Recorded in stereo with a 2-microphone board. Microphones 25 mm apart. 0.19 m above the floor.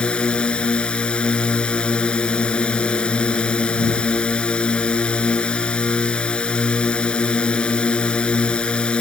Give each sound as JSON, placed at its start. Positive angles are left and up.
{"t": 0.0, "sound": "a drone", "side_deg": 40}